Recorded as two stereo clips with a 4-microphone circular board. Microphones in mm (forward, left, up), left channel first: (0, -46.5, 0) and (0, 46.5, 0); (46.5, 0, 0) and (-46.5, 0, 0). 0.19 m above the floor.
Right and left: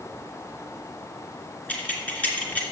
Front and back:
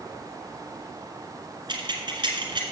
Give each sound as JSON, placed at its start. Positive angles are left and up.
{"t": 1.7, "sound": "keys jangling", "azimuth_deg": -160, "distance_m": 2.0}